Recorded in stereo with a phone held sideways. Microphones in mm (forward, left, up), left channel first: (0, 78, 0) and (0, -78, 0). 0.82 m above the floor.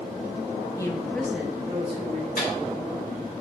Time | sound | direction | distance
0.8 | a woman speaking | 20° left (ahead or behind) | 1.2 m
2.4 | a microwave | 60° left (ahead or behind) | 2.5 m